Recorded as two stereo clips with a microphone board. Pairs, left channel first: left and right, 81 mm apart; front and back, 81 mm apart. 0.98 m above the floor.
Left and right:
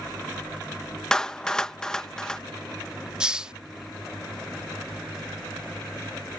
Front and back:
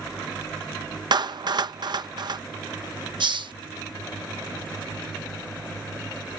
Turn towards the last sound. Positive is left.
turn(degrees=-170)